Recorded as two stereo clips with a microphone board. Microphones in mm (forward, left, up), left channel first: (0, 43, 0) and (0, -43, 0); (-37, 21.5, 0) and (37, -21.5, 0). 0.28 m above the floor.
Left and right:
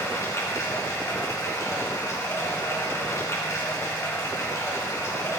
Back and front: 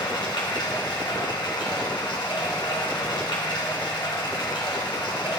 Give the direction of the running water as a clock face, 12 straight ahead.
7 o'clock.